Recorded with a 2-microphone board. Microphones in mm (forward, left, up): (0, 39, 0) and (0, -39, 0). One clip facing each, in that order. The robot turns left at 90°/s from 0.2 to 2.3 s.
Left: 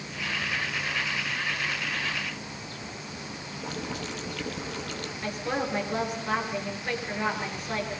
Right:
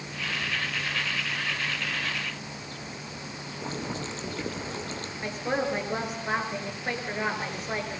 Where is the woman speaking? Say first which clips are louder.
Right 2 dB; 20° right (ahead or behind), 7.5 m.